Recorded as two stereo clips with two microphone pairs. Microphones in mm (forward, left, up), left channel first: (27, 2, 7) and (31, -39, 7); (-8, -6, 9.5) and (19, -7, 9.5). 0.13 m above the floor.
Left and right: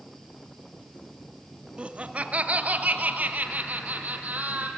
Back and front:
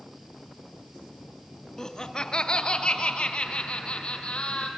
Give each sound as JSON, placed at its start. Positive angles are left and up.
{"t": 1.8, "sound": "laughter", "azimuth_deg": -120, "distance_m": 1.3}